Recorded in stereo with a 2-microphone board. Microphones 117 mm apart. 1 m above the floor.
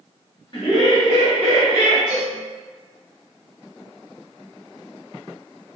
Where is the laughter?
45° left (ahead or behind), 1.1 m; by 2.0 s 35° left (ahead or behind), 1.2 m.